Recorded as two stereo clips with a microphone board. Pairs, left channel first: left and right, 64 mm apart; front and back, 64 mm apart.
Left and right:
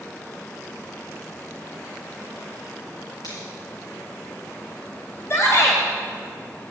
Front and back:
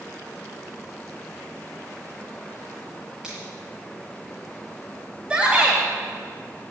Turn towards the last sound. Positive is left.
turn(degrees=110)